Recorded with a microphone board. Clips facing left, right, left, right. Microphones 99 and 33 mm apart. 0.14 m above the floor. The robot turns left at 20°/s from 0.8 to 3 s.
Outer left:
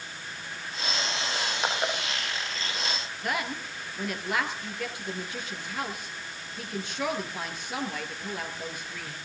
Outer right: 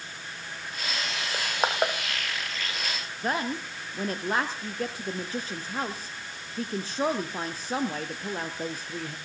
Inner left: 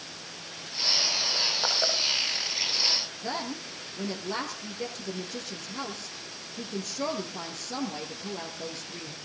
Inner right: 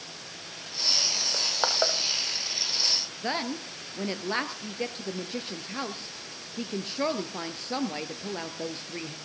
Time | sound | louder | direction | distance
1.3 | crushing | outer right 5 dB, inner right 4 dB | 35° right (ahead or behind) | 3.5 m
3.2 | a woman speaking | outer right 3 dB, inner right 3 dB | 35° right (ahead or behind) | 2.5 m